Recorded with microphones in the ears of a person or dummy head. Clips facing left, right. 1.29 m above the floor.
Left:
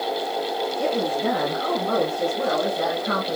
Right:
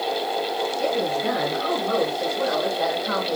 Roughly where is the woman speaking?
Left.